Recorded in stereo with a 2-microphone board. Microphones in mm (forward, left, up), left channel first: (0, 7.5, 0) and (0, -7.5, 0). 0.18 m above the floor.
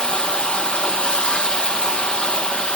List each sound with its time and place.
0.0 s running water: 85° left, 1.3 m